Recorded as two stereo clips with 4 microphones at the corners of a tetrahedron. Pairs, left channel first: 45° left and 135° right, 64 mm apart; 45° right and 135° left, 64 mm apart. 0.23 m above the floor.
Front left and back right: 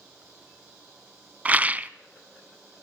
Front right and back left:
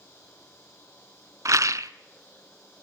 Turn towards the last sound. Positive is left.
turn(degrees=160)